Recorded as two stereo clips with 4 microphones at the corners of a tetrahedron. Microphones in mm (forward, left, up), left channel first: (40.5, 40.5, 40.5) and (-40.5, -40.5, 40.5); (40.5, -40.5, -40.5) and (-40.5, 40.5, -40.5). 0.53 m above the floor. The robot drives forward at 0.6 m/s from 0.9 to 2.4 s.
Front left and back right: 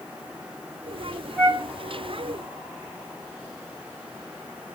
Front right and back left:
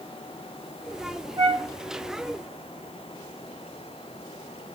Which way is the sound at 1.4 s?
150° left.